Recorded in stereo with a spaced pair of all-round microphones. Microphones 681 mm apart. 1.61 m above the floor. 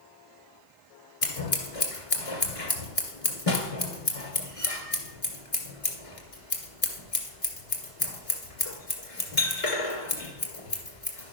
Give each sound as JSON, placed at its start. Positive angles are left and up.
{"t": 1.2, "sound": "scissors", "side_deg": 50, "distance_m": 1.9}